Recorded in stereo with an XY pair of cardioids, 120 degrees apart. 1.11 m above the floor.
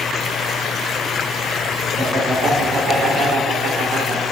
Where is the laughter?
40° right, 4.5 m; by 4.2 s 60° right, 3.5 m.